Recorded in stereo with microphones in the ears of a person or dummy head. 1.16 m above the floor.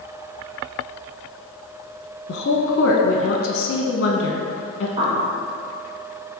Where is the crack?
I don't hear a crack.